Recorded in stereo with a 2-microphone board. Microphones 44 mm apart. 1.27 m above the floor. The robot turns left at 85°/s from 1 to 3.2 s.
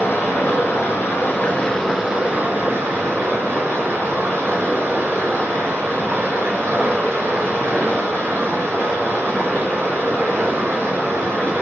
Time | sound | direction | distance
0.0 | running water | 80° left | 4.5 m